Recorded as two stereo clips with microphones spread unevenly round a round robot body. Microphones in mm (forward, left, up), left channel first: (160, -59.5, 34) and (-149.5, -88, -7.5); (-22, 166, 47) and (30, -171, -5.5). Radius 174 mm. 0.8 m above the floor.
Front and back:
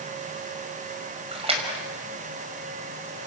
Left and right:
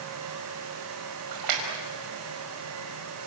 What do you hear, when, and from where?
1.3 s a splash: 105° right, 5 m